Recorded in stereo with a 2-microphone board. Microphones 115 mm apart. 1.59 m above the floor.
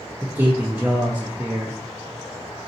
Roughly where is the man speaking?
Centre.